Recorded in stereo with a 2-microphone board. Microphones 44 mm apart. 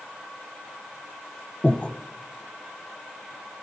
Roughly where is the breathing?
Left.